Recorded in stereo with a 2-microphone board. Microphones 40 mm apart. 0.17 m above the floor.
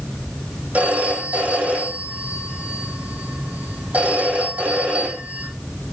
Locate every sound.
0.7 s a phone ringing: 40° right (ahead or behind), 5 m